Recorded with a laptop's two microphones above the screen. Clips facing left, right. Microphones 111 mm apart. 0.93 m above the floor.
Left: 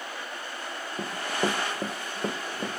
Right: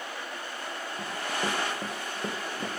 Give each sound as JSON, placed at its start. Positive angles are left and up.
{"t": 1.0, "sound": "running footsteps", "side_deg": 40, "distance_m": 3.5}